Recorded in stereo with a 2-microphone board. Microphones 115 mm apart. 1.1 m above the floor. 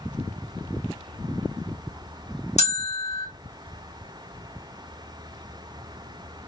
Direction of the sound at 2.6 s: 75° left (ahead or behind).